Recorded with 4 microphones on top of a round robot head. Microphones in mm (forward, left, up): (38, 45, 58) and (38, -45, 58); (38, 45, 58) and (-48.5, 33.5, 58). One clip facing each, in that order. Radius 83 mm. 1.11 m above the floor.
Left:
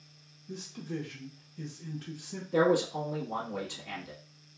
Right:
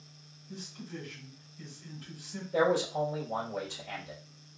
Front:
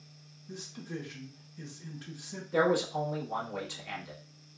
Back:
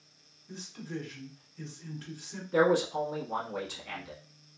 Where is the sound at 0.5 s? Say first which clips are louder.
Left 5 dB, back 1 dB; 85° left, 0.8 m.